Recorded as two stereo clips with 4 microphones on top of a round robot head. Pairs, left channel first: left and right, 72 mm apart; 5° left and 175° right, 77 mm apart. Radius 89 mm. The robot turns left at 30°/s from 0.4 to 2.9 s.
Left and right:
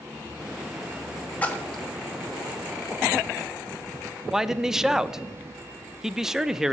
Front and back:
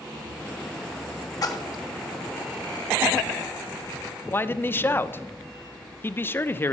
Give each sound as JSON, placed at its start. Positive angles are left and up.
{"t": 1.4, "sound": "a splash", "azimuth_deg": 25, "distance_m": 1.8}
{"t": 4.3, "sound": "a man speaking", "azimuth_deg": -10, "distance_m": 0.7}